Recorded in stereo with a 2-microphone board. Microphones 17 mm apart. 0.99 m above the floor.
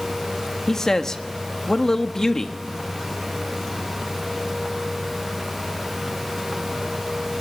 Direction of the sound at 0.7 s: 25° left (ahead or behind).